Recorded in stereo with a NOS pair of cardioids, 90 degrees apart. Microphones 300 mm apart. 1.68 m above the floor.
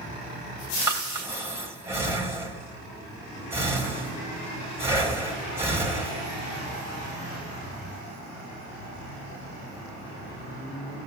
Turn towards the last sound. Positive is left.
turn(degrees=-10)